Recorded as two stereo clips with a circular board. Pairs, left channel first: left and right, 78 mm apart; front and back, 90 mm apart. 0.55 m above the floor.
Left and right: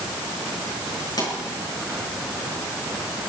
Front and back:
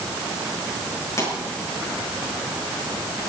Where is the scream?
No scream in this recording.